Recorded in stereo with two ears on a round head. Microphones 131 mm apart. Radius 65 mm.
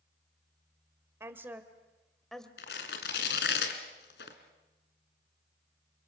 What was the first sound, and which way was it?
A woman speaking, 20° right (ahead or behind).